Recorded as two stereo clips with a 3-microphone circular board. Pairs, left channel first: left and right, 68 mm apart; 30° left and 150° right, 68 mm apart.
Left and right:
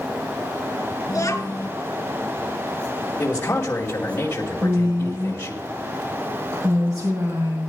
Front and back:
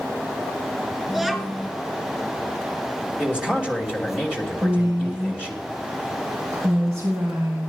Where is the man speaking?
140° left, 2.5 m.